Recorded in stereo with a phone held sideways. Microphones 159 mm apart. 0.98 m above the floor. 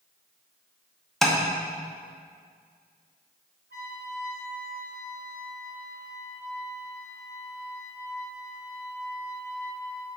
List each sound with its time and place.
1.2 s tapping: centre (ahead or behind), 0.9 m
3.7 s a trumpet: 80° right, 1.9 m